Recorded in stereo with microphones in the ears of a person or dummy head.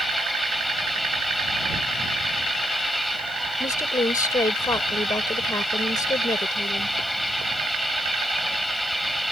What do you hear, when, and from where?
0.0 s an engine running: centre (ahead or behind)
3.6 s a woman speaking: 15° left (ahead or behind)